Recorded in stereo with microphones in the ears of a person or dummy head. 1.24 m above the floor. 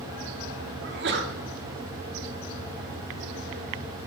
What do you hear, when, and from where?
0.8 s a sneeze: 55° right (ahead or behind), 0.9 m